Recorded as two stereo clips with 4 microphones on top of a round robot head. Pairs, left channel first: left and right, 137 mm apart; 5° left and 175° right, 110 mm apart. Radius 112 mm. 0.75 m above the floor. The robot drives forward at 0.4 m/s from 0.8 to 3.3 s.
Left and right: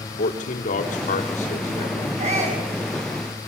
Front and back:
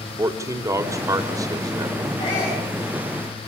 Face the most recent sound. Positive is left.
turn(degrees=-55)